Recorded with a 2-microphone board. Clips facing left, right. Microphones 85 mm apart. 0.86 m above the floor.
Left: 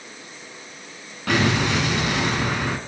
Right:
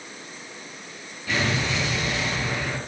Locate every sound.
1.3 s an explosion: 70° left (ahead or behind), 3.5 m